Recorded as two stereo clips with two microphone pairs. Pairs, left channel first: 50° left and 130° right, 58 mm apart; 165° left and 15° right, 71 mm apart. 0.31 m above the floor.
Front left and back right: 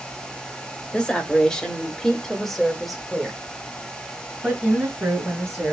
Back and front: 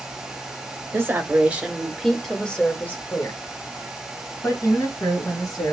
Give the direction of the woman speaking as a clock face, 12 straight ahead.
12 o'clock.